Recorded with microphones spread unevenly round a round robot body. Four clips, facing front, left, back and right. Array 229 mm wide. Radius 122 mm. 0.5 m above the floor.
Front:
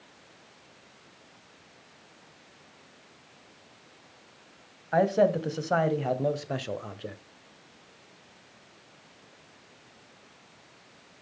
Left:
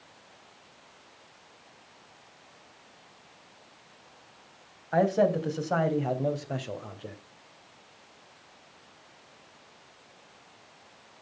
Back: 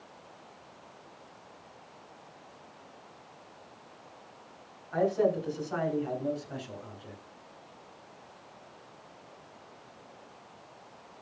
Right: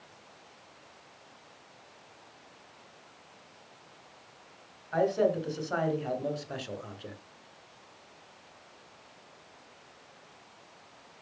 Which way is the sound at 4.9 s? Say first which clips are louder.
Left 3 dB, front 4 dB; 30° left.